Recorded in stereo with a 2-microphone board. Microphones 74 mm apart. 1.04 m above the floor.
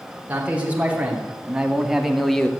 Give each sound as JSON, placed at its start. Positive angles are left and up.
{"t": 0.3, "sound": "a man speaking", "side_deg": -20, "distance_m": 3.5}